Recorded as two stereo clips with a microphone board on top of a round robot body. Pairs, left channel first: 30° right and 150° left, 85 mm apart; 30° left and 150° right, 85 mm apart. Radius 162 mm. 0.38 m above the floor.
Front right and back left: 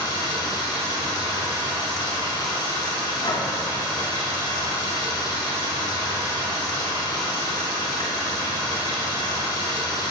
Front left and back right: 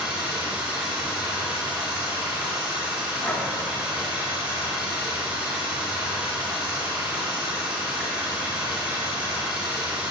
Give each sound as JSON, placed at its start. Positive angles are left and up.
{"t": 0.0, "sound": "running water", "azimuth_deg": -70, "distance_m": 1.2}
{"t": 3.2, "sound": "breathing", "azimuth_deg": -35, "distance_m": 0.9}